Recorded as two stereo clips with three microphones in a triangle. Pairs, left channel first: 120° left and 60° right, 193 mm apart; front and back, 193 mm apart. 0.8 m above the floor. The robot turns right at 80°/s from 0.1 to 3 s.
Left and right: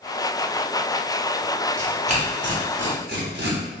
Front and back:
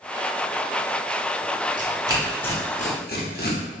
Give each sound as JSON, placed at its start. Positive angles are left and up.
{"t": 1.8, "sound": "tearing paper", "azimuth_deg": -135, "distance_m": 0.9}